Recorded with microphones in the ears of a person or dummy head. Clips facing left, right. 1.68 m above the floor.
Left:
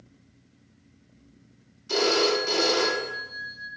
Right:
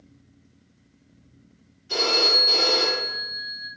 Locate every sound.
1.9 s a phone ringing: 65° left (ahead or behind), 1.9 m